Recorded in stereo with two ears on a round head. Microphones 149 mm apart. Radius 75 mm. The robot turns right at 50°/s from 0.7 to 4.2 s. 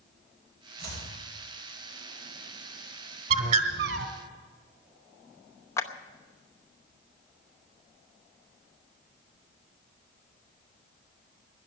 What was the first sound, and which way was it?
Chopping, 70° right (ahead or behind).